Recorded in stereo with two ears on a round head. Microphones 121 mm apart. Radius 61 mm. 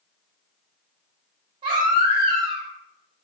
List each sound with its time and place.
1.6 s a baby crying: 35° right (ahead or behind), 1.0 m